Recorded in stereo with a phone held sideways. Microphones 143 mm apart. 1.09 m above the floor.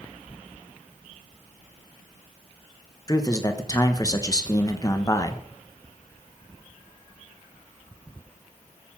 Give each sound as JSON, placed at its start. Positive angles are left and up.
{"t": 3.1, "sound": "a man speaking", "side_deg": 25, "distance_m": 1.1}